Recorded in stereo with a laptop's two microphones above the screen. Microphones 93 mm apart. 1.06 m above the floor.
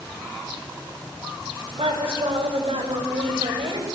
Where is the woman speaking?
85° right, 4.5 m.